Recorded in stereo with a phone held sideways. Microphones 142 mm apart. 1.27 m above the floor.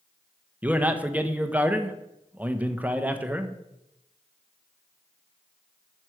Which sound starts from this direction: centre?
A man speaking, at 0.6 s.